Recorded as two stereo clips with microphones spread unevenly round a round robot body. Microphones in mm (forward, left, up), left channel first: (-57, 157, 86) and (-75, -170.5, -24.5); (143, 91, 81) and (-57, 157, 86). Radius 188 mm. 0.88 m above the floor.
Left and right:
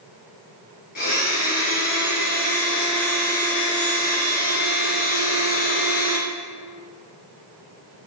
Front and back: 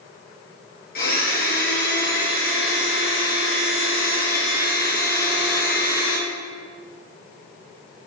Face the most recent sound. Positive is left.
turn(degrees=25)